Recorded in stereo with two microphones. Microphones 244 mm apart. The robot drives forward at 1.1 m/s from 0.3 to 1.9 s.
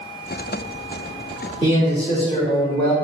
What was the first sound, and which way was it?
A man speaking, 20° left (ahead or behind).